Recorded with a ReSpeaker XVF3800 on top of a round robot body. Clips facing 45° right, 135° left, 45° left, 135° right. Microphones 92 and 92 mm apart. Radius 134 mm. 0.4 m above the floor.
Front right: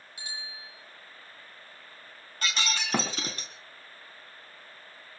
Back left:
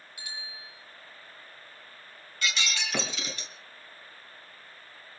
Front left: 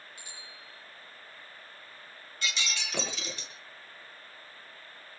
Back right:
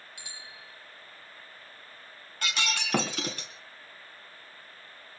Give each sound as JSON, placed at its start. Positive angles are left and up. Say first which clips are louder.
{"t": 0.2, "sound": "a bicycle bell", "louder": "front right 1 dB, back right 1 dB", "azimuth_deg": -110, "distance_m": 8.5}
{"t": 2.4, "sound": "breaking glass", "louder": "front right 1 dB, back right 4 dB", "azimuth_deg": -95, "distance_m": 3.0}